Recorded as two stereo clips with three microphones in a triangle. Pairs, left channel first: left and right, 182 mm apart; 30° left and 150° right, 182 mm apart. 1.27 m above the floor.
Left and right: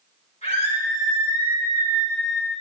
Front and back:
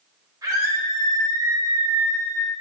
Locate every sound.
0.4 s a scream: 140° left, 5.5 m